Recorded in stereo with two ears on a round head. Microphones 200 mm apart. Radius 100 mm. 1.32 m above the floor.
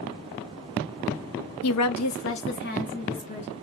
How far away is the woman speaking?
About 0.5 m.